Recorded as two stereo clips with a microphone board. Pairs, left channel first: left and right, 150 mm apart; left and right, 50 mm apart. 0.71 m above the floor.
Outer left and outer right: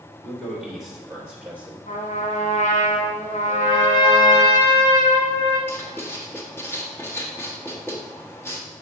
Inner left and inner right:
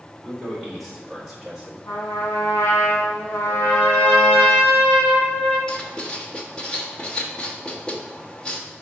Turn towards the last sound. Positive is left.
turn(degrees=15)  # may be behind; listen again after turning